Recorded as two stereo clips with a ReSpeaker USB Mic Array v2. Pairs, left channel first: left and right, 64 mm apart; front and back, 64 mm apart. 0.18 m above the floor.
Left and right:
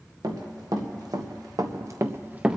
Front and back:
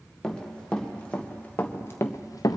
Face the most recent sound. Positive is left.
turn(degrees=-10)